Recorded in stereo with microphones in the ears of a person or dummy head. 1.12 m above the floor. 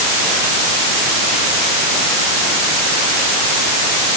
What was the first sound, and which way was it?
Only background noise.